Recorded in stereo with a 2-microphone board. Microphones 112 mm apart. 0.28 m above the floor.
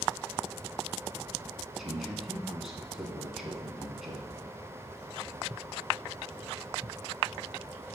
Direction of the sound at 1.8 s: Centre (ahead or behind).